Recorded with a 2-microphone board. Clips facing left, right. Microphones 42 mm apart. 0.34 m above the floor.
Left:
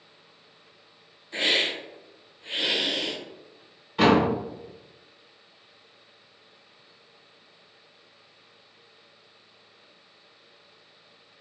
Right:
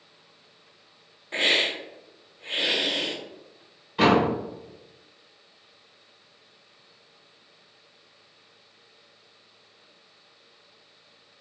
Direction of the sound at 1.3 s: 50° right (ahead or behind).